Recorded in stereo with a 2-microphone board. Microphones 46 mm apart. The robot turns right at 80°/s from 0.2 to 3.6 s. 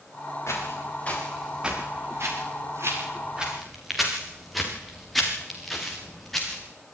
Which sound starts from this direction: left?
Footsteps, at 0.5 s.